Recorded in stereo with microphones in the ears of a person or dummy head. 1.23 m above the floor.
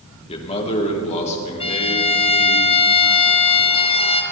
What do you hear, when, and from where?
0.3 s a man speaking: 40° left (ahead or behind), 2.5 m; by 2.6 s 45° left (ahead or behind), 3.5 m
1.6 s a violin: 20° left (ahead or behind), 0.8 m